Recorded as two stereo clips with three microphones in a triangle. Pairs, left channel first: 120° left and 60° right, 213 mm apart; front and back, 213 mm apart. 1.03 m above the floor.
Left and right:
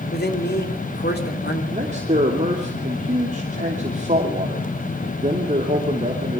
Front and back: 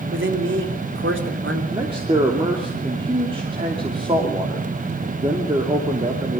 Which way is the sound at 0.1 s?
160° left.